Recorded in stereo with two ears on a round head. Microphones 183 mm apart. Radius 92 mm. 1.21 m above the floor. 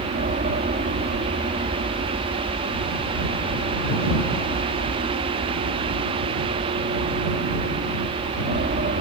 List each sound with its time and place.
0.0 s an aircraft: 40° right (ahead or behind)